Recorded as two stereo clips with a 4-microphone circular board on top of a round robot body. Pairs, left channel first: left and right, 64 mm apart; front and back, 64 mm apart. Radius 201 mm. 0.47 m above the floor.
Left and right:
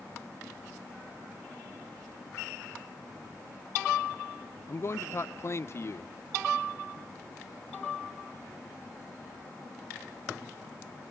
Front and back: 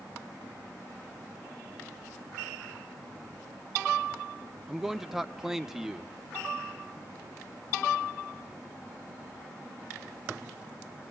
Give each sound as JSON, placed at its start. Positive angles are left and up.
{"t": 4.7, "sound": "a man speaking", "azimuth_deg": 100, "distance_m": 0.8}